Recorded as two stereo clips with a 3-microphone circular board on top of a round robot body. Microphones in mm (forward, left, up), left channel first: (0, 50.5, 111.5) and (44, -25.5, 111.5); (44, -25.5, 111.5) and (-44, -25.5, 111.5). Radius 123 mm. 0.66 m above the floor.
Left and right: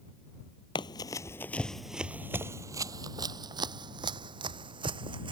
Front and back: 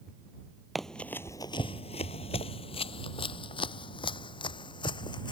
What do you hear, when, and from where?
0.8 s running footsteps: 90° left; by 5.3 s 35° right